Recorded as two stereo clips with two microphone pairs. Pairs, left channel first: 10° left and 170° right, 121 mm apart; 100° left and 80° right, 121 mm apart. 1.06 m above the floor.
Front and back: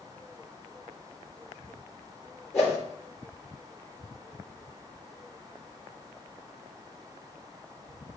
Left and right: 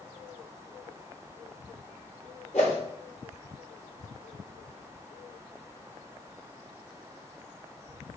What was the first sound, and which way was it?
A whoosh, 85° left.